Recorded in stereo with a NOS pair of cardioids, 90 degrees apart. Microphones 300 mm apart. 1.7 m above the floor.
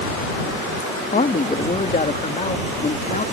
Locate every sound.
1.1 s a man speaking: 25° left